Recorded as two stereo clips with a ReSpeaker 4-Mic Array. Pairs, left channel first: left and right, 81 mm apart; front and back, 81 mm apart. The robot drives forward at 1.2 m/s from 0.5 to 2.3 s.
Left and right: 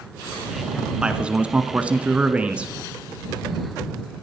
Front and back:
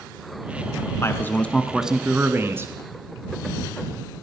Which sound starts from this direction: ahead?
A man speaking, at 1.0 s.